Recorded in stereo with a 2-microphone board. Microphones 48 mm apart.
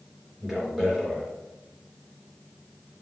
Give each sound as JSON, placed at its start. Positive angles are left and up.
{"t": 0.4, "sound": "a man speaking", "side_deg": -5, "distance_m": 3.0}